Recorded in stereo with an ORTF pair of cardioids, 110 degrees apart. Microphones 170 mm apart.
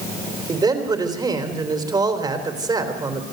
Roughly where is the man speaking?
Ahead right.